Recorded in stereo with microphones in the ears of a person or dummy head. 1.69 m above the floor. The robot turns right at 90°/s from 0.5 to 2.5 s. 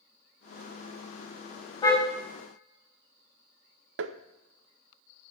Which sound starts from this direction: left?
A car horn, at 1.8 s.